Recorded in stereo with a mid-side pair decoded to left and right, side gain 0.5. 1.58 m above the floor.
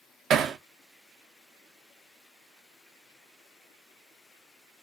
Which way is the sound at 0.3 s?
65° right.